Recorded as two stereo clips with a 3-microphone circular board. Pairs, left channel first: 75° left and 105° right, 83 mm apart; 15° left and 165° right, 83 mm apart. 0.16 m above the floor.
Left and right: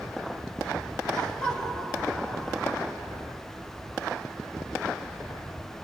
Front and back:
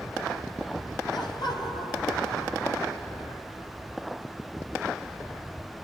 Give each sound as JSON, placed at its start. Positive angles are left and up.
{"t": 1.1, "sound": "laughter", "azimuth_deg": -5, "distance_m": 4.0}